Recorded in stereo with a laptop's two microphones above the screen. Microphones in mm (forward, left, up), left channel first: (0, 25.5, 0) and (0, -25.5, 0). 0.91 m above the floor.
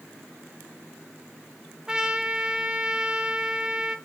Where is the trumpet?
15° right (ahead or behind), 0.6 m.